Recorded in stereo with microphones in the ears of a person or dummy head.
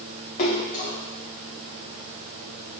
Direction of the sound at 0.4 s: 45° left (ahead or behind).